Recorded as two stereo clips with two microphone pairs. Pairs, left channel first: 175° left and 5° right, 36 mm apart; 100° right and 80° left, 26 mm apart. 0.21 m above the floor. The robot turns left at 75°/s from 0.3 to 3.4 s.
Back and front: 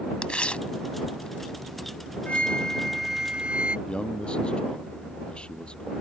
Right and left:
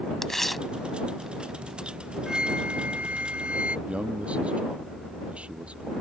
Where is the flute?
135° left; by 3.8 s 50° left.